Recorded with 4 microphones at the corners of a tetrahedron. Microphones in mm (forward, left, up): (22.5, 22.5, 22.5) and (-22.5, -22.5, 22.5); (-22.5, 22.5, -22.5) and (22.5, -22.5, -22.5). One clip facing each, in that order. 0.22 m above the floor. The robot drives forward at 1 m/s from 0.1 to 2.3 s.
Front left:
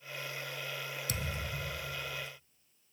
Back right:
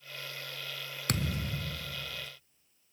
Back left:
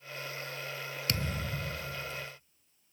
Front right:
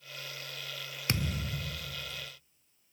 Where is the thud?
110° right, 0.7 m; by 2.3 s 155° right, 1.6 m.